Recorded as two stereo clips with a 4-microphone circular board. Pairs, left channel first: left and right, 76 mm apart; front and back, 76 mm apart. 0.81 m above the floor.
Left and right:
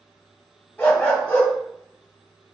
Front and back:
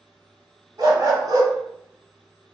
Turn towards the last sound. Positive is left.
turn(degrees=160)